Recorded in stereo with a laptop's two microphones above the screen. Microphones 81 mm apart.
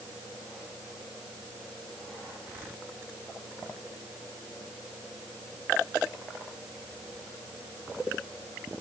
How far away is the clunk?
I don't hear a clunk.